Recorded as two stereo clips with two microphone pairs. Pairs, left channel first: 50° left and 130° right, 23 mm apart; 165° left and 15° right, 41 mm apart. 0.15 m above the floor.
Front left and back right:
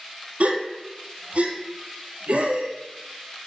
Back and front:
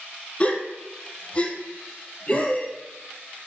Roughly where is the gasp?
Behind right.